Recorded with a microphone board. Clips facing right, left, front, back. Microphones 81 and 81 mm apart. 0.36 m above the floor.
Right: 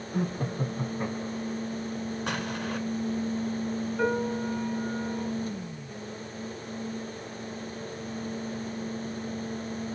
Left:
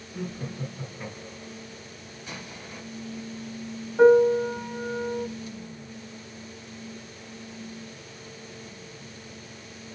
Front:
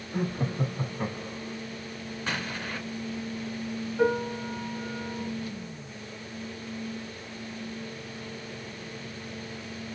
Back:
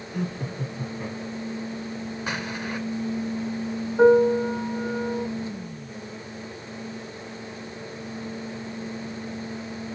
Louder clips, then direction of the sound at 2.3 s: Right 7 dB, back 2 dB; 105° right.